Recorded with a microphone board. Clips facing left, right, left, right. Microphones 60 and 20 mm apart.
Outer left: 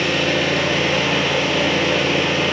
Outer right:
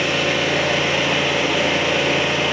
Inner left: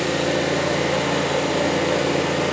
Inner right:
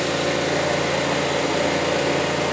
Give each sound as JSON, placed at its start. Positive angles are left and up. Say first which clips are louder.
{"t": 0.0, "sound": "an engine running", "louder": "outer left 1 dB, inner left 1 dB", "side_deg": -5, "distance_m": 1.5}